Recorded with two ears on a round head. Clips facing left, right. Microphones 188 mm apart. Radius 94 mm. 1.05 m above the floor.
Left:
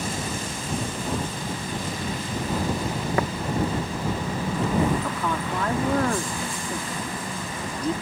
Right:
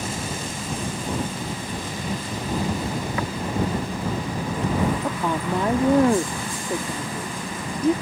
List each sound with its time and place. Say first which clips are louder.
3.2 s tapping: left 6 dB; 40° left (ahead or behind)
5.0 s a woman speaking: right 3 dB; 20° right (ahead or behind)